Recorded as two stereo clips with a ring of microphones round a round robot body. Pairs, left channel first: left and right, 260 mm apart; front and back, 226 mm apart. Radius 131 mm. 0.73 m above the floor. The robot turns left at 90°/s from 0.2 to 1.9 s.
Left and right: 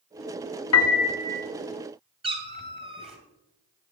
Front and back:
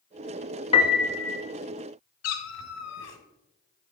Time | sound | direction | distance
0.7 | a piano | 65° left | 1.3 m
2.2 | a cat meowing | 20° right | 2 m